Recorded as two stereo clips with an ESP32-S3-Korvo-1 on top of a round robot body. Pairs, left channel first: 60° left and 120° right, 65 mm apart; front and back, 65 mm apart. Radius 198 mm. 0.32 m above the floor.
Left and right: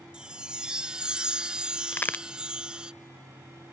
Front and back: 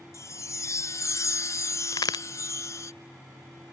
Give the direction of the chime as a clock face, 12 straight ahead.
1 o'clock.